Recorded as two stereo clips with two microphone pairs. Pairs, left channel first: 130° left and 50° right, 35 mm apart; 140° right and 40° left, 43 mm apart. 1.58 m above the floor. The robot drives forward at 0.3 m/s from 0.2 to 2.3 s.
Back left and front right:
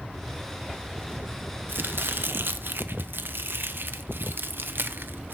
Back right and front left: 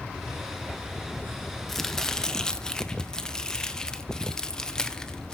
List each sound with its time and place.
1.7 s chopping: 55° right, 1.1 m; by 5.3 s 65° right, 1.0 m